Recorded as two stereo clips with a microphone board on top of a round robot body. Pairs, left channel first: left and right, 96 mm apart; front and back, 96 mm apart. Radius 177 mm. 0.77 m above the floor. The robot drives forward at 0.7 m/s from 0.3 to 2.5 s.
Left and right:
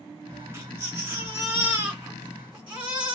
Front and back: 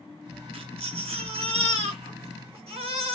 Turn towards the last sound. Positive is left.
turn(degrees=-170)